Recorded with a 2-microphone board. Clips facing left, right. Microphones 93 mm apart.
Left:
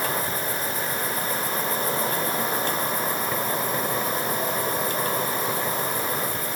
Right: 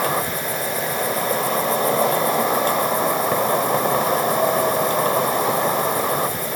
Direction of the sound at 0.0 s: 70° right (ahead or behind).